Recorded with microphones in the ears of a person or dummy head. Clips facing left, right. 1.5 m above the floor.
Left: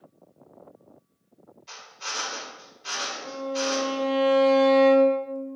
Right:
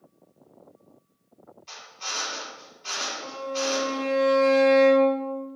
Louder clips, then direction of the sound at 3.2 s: Left 1 dB; 55° right (ahead or behind).